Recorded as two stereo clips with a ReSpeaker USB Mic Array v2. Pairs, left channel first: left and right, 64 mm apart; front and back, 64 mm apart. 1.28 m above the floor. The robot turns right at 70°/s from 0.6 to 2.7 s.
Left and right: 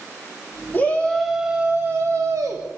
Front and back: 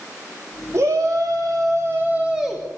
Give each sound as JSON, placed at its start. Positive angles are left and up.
{"t": 0.7, "sound": "a shout", "azimuth_deg": 145, "distance_m": 3.0}